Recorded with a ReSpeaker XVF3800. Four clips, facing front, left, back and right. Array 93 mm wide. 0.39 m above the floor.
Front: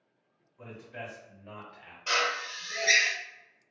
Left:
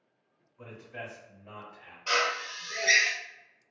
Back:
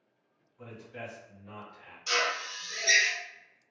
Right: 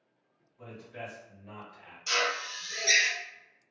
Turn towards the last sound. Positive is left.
turn(degrees=40)